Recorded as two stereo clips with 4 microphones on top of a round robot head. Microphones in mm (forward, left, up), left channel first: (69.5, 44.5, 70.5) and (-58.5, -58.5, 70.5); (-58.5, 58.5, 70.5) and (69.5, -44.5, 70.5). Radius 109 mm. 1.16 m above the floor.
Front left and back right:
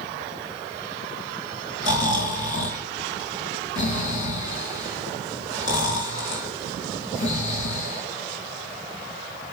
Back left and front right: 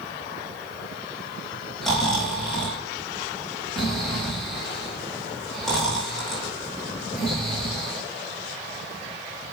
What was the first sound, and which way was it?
Snoring, 55° left.